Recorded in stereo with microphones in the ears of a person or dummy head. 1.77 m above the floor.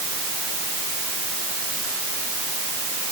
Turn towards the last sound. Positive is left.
No sound to turn to.